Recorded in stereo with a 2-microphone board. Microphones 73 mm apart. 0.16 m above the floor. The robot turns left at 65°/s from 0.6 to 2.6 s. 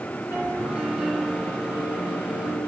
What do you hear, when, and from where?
0.3 s a piano: 145° right, 2.5 m; by 2.7 s 85° left, 2.5 m